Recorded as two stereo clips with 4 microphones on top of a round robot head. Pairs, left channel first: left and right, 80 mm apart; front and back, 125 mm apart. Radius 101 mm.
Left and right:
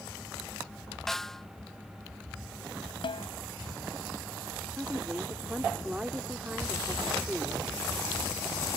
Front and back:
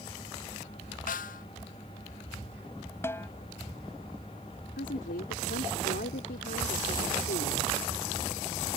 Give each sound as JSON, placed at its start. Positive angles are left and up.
{"t": 1.1, "sound": "a snare drum", "azimuth_deg": 5}
{"t": 3.0, "sound": "a snare drum", "azimuth_deg": 70}
{"t": 4.8, "sound": "a woman speaking", "azimuth_deg": -10}